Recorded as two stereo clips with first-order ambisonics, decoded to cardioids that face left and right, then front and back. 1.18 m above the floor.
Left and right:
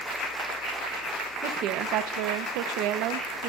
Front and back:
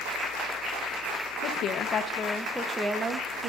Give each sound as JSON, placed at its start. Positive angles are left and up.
{"t": 1.4, "sound": "a woman speaking", "azimuth_deg": -45, "distance_m": 1.2}